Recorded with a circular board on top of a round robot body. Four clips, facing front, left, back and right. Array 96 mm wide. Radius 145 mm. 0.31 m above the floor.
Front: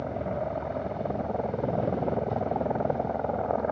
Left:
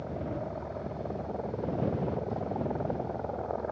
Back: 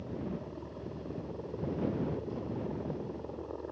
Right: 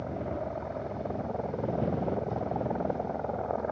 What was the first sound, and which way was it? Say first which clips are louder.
A helicopter: right 2 dB, front 9 dB; 10° right.